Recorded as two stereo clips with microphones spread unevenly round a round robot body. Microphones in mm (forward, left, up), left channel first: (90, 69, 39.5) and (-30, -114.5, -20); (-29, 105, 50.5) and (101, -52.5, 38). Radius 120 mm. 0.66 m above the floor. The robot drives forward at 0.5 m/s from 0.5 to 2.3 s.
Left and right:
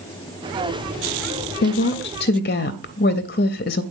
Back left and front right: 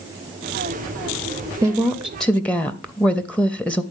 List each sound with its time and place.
1.6 s a woman speaking: 20° left, 0.7 m; by 3.8 s 45° left, 0.5 m